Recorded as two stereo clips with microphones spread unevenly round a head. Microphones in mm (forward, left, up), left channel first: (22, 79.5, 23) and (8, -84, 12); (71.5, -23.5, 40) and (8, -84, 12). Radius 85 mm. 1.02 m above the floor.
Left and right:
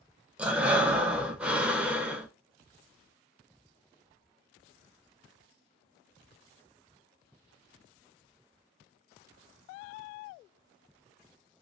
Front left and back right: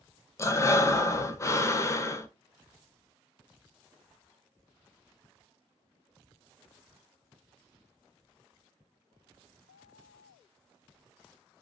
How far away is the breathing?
About 0.6 m.